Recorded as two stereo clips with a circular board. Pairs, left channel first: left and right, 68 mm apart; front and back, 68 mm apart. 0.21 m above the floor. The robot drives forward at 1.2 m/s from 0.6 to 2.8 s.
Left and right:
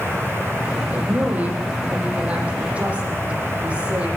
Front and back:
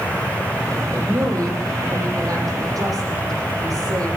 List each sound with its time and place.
0.9 s a woman speaking: 155° right, 7.5 m; by 4.1 s 160° right, 9.5 m